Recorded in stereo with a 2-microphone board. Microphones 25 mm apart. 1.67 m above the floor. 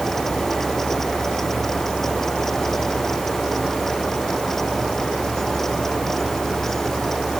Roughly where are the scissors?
I don't hear scissors.